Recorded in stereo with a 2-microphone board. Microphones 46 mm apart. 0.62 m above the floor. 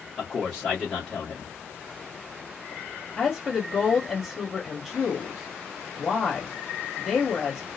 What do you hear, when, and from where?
0.2 s a man speaking: 15° left (ahead or behind), 1.1 m
3.2 s a woman speaking: centre (ahead or behind), 1.6 m